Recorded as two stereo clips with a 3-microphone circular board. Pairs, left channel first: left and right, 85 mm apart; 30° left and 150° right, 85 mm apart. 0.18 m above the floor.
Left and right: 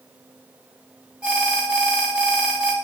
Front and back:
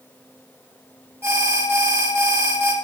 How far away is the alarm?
About 1.3 m.